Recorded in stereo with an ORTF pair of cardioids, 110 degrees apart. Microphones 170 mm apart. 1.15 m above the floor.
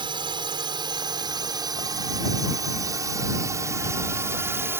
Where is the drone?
30° right; by 4.8 s 15° right.